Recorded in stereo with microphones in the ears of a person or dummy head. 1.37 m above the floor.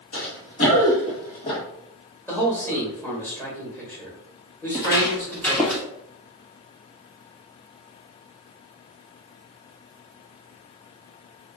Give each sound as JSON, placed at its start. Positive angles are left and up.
{"t": 0.1, "sound": "running footsteps", "side_deg": 45, "distance_m": 1.9}
{"t": 2.3, "sound": "a man speaking", "side_deg": 10, "distance_m": 1.8}
{"t": 4.7, "sound": "footsteps", "side_deg": 30, "distance_m": 1.7}